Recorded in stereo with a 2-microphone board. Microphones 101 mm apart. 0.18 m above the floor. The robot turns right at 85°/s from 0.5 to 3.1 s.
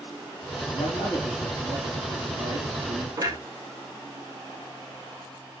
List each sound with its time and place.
0.7 s a man speaking: 120° left, 5 m; by 3.1 s 35° right, 5 m
3.2 s a clunk: 35° right (ahead or behind), 2.5 m